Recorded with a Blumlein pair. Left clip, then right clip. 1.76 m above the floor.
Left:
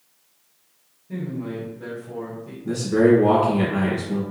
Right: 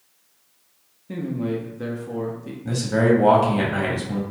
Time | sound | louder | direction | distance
1.1 | a man speaking | right 4 dB | 60° right | 0.6 m
2.6 | a man speaking | left 2 dB | 65° right | 1.1 m